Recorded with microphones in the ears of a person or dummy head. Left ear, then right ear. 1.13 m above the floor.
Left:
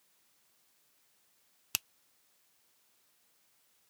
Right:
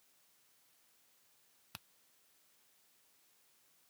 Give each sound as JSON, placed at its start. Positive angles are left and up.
{"t": 1.7, "sound": "a finger snap", "side_deg": 80}